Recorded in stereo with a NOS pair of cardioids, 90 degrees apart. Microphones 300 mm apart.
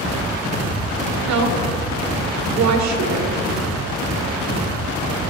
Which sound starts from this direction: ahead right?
A woman speaking, at 1.2 s.